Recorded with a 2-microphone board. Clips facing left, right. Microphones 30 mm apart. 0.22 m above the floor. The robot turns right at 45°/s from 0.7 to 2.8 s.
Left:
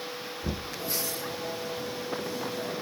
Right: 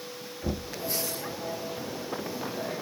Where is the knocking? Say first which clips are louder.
Right 3 dB; 10° right (ahead or behind), 1.8 m.